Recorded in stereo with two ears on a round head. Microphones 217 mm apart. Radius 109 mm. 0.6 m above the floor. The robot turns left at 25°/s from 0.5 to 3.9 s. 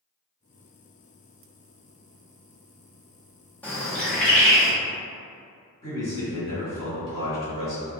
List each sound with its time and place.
3.6 s a bird: 5° left (ahead or behind), 0.9 m
5.8 s a man speaking: 25° left (ahead or behind), 1.7 m